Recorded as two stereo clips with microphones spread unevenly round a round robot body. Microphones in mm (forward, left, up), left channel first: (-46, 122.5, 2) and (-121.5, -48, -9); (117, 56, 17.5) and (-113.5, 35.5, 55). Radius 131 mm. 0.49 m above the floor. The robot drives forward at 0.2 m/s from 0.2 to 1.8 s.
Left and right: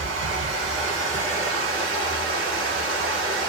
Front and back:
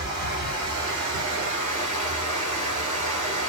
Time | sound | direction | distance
0.0 | running water | 120° right | 1.5 m